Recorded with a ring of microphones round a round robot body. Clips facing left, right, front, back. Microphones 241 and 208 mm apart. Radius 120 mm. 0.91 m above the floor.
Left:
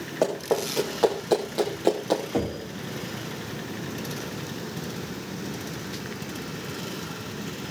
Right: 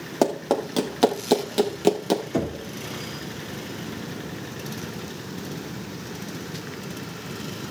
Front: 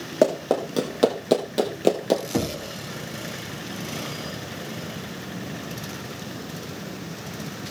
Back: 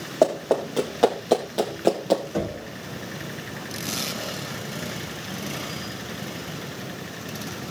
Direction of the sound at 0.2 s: 65° right.